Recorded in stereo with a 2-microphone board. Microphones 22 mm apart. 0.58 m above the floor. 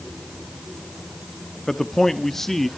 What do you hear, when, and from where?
1.7 s a man speaking: 20° left (ahead or behind), 0.7 m; by 2.7 s 15° left (ahead or behind), 1.0 m